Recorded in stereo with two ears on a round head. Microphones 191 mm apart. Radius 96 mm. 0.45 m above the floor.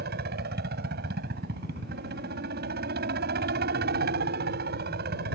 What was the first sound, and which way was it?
A helicopter, 50° right (ahead or behind).